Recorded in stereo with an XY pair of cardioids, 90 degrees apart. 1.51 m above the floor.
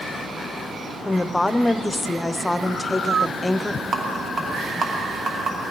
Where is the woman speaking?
15° left, 0.6 m.